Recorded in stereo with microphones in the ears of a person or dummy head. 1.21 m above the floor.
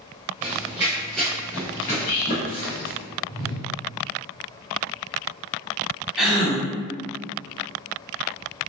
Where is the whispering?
45° left (ahead or behind), 1.3 m.